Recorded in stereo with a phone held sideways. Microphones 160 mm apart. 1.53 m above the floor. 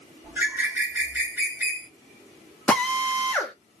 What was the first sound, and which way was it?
A bird, 10° right (ahead or behind).